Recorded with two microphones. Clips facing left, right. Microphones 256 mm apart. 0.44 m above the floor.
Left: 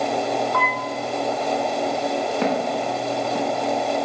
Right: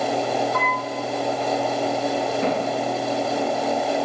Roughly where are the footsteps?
Left.